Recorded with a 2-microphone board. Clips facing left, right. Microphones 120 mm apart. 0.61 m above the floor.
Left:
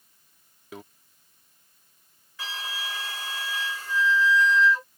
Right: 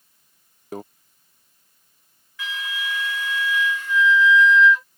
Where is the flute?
35° left (ahead or behind).